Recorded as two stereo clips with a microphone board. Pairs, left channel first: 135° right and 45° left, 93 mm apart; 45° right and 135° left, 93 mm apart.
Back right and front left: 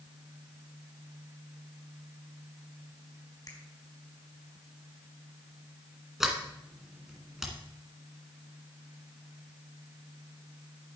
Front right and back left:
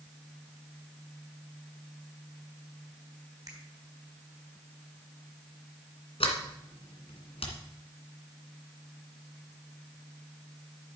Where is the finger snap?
175° right, 3.5 m.